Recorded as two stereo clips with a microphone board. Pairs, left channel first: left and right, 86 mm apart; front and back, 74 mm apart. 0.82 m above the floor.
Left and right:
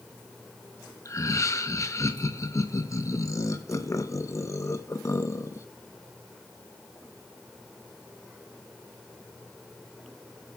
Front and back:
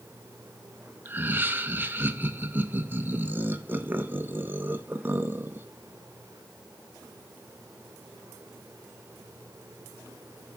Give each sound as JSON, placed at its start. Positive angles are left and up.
{"t": 1.1, "sound": "laughter", "azimuth_deg": 125, "distance_m": 0.8}